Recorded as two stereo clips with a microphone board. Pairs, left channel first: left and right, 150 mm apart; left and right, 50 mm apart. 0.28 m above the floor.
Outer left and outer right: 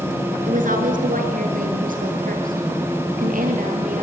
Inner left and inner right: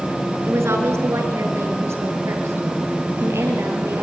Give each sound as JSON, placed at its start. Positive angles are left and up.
{"t": 0.5, "sound": "a woman speaking", "side_deg": -75, "distance_m": 4.0}